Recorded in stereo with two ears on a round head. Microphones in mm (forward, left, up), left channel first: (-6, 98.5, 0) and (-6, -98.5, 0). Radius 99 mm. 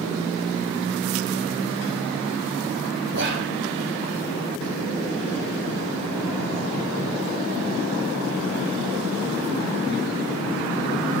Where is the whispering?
55° right (ahead or behind), 4 m.